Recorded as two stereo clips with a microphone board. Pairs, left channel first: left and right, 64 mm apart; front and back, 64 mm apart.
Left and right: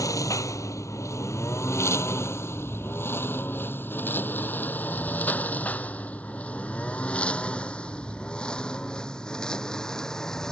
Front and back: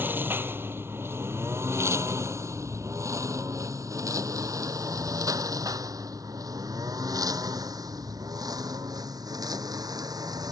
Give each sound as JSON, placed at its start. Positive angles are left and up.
{"t": 0.0, "sound": "a lawn mower", "azimuth_deg": 120}